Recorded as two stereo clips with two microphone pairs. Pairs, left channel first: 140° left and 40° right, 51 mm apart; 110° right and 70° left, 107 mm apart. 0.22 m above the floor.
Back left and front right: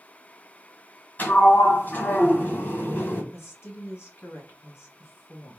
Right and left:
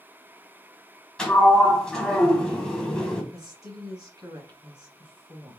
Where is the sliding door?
170° left, 1.0 m.